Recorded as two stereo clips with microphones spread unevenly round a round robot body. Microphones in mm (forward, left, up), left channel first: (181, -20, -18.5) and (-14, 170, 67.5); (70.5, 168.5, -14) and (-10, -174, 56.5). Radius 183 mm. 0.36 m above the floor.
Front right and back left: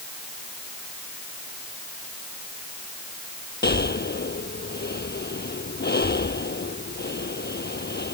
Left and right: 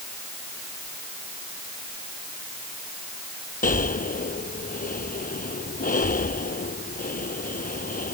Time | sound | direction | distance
3.6 | breathing | 10° left | ?